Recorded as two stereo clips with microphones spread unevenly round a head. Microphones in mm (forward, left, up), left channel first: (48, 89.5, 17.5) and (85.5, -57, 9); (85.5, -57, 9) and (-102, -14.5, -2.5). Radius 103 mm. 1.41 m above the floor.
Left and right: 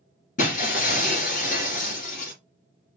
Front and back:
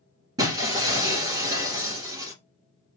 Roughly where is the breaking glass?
Left.